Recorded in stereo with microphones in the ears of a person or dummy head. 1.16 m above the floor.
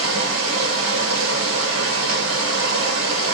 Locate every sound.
0.0 s running water: 80° right, 1.4 m